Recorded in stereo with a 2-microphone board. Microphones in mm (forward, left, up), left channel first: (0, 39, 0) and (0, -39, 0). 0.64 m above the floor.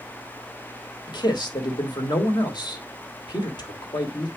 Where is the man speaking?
65° left (ahead or behind), 2 m.